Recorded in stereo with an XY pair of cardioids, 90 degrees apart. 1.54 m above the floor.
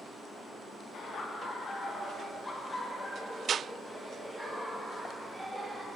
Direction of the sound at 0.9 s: 65° left.